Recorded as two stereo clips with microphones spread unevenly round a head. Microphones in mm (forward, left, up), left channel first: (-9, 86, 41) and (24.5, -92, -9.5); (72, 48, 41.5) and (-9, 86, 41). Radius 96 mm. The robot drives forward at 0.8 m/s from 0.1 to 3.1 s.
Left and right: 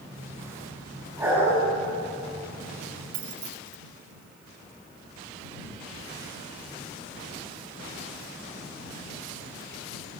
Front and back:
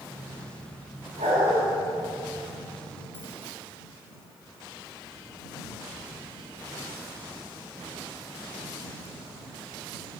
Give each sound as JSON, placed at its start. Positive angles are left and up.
{"t": 1.2, "sound": "a dog barking", "azimuth_deg": -160, "distance_m": 6.0}
{"t": 3.1, "sound": "keys jangling", "azimuth_deg": -100, "distance_m": 1.4}